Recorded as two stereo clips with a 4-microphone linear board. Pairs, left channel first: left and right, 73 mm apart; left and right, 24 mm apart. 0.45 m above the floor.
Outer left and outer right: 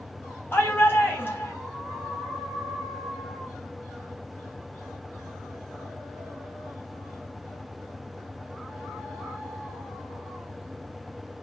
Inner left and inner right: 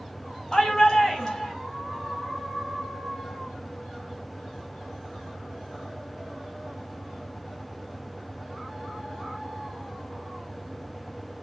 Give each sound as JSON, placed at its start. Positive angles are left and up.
{"t": 0.5, "sound": "a shout", "side_deg": 30, "distance_m": 3.0}